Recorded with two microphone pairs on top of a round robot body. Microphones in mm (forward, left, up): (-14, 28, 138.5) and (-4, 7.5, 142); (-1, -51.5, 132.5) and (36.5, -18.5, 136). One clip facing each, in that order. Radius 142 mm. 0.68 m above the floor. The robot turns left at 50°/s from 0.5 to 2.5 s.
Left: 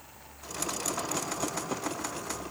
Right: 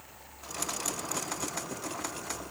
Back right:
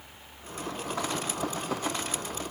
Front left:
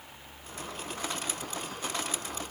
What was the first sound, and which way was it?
Only background noise.